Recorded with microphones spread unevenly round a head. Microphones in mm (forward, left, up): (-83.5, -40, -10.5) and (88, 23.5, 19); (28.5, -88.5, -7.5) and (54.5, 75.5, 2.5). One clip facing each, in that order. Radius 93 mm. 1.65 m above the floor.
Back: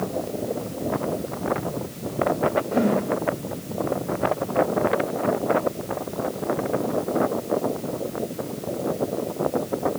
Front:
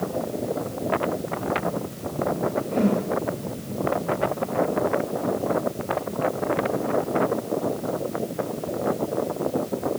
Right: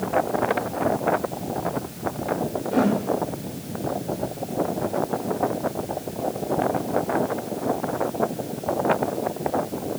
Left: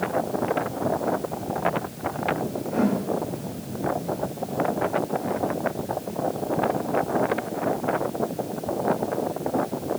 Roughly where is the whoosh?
Right.